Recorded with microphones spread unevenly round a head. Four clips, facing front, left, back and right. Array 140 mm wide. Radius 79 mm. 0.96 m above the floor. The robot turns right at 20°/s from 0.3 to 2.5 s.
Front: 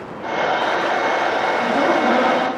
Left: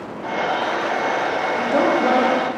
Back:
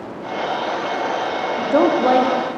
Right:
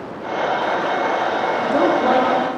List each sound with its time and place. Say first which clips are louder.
1.6 s a woman speaking: even, back 4 dB; 175° left, 2.5 m; by 2.4 s 170° right, 2.5 m